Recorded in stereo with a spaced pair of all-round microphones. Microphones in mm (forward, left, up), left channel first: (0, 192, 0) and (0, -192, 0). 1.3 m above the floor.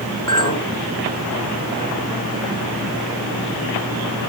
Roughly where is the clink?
Left.